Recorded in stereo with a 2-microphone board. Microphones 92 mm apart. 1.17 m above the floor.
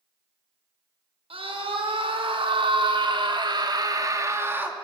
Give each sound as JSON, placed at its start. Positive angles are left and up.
{"t": 1.3, "sound": "a scream", "side_deg": -80, "distance_m": 5.0}